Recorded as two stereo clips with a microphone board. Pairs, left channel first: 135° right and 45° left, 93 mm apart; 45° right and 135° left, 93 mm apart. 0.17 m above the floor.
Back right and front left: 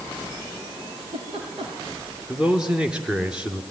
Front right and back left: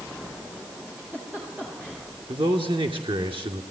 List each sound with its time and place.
0.9 s a giggle: 60° left, 9 m
2.3 s a man speaking: 125° left, 2.5 m